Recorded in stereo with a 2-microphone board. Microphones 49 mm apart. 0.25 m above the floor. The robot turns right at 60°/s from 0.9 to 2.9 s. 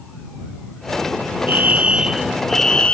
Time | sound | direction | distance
1.5 | a fire alarm | 50° right | ?